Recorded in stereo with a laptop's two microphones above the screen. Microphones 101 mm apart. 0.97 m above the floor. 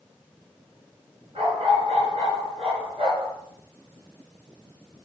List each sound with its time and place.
1.4 s a dog barking: 75° right (ahead or behind), 4.5 m; by 3.3 s 85° right, 5.5 m